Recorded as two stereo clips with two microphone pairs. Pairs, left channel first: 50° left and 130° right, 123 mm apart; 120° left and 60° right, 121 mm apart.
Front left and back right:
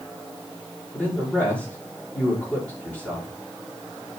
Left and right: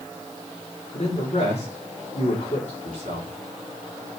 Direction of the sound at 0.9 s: 130° left.